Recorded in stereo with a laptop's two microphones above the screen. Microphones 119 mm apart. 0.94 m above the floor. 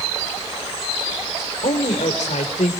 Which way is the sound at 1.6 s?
85° left.